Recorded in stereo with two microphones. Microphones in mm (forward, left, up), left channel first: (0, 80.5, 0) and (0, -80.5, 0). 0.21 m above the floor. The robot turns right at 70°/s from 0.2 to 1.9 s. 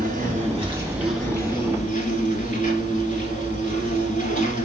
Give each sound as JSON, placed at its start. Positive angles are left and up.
{"t": 0.0, "sound": "an insect", "azimuth_deg": -65, "distance_m": 1.6}